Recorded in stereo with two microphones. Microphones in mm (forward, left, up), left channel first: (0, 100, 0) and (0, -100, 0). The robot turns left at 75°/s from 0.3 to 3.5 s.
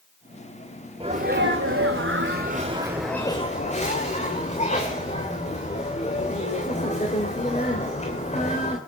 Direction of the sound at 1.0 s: 25° right.